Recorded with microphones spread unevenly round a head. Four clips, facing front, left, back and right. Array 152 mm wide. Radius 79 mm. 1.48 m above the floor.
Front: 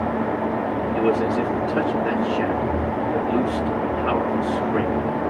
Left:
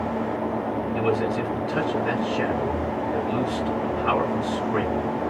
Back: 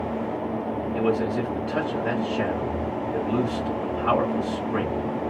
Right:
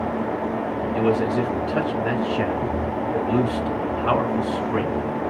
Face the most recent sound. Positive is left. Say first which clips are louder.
# right 4 dB, front 3 dB
turn(degrees=-115)